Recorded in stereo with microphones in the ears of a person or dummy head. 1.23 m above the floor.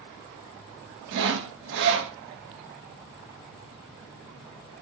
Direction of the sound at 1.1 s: 60° right (ahead or behind).